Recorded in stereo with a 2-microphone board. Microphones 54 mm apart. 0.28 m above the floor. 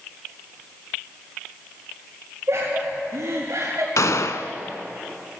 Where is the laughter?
55° right (ahead or behind), 4 m; by 3.9 s 65° right (ahead or behind), 4 m.